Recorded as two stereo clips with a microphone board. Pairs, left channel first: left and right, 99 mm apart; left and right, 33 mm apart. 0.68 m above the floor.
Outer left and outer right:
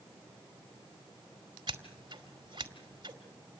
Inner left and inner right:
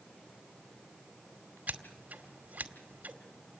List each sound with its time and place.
1.7 s scissors: 50° right (ahead or behind), 2 m